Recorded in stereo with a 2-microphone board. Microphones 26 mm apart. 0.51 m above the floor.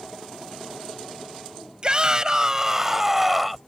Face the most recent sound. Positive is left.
turn(degrees=0)  # may be behind; listen again after turning